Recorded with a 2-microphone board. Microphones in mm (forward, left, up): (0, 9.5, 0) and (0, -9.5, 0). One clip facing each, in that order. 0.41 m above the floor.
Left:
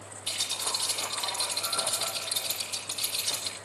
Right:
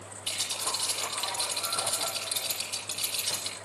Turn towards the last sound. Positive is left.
turn(degrees=-20)  # may be behind; listen again after turning